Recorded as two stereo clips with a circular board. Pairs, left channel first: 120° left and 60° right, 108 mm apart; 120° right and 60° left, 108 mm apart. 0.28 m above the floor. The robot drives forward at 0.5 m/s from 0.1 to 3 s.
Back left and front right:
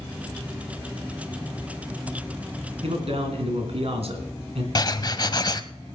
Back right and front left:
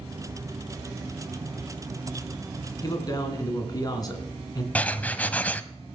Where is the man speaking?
70° right, 2.5 m.